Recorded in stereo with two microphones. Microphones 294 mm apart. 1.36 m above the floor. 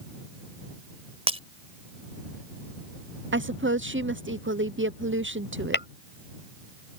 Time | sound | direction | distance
1.3 | breaking glass | 20° right (ahead or behind) | ?
3.3 | a woman speaking | 40° right (ahead or behind) | ?
5.7 | tapping | 40° left (ahead or behind) | ?